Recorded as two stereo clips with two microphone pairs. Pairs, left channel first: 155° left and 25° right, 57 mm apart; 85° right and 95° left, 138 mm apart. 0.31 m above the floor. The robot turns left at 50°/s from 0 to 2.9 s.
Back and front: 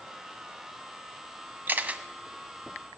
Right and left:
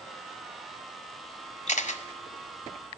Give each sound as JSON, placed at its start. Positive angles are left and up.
{"t": 1.7, "sound": "a camera shutter", "azimuth_deg": -70, "distance_m": 0.9}